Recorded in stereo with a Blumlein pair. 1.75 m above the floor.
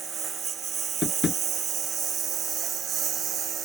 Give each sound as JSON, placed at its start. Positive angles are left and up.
{"t": 0.0, "sound": "a lawn mower", "azimuth_deg": -25}
{"t": 1.0, "sound": "tapping", "azimuth_deg": 20}